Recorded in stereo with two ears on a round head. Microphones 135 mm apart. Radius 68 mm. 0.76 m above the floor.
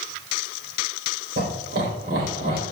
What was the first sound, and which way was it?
Laughter, 70° right (ahead or behind).